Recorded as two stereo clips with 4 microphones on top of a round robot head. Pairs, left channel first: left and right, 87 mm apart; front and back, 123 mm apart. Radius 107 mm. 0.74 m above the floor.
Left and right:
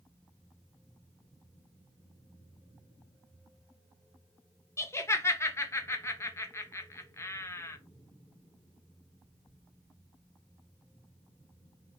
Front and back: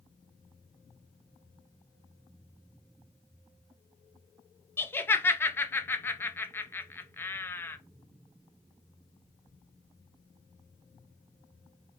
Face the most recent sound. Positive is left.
turn(degrees=60)